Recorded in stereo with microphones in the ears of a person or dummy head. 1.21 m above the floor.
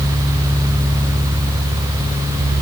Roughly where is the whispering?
No whispering in this recording.